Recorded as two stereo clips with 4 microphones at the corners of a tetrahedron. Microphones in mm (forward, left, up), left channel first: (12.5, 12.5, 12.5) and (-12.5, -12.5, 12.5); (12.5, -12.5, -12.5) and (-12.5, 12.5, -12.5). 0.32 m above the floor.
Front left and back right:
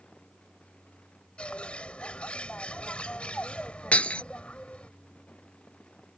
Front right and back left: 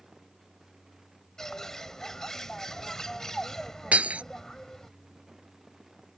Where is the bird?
20° left.